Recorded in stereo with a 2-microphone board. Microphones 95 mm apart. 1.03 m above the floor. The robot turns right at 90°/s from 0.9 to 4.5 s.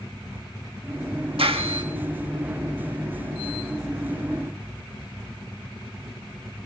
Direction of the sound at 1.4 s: 95° right.